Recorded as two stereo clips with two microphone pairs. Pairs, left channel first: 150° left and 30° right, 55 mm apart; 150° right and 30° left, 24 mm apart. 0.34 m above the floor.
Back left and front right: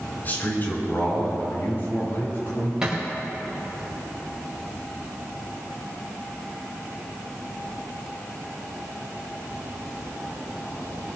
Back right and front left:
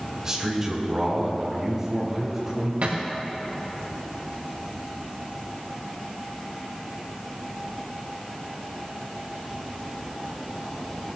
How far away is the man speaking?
About 4 m.